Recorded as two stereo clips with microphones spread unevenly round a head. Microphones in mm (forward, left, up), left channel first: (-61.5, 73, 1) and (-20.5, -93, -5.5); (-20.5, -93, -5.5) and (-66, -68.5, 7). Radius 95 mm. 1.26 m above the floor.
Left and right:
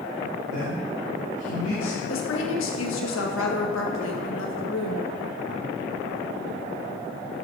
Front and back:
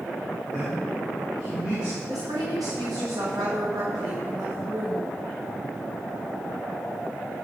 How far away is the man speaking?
About 3 m.